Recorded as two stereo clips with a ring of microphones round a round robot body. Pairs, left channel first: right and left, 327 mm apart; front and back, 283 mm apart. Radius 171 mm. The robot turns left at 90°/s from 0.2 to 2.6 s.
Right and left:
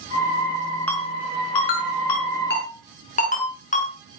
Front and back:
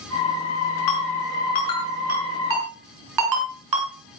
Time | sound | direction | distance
0.9 | a ringtone | 5° right | 5.5 m